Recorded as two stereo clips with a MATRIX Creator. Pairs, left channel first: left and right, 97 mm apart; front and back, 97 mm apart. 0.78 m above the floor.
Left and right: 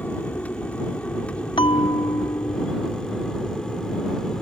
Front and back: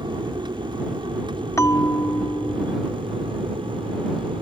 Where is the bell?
60° left.